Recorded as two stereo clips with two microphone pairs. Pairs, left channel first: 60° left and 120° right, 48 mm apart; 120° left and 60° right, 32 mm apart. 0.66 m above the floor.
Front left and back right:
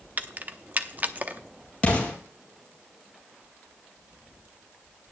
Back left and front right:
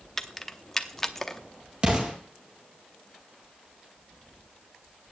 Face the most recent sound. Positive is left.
turn(degrees=0)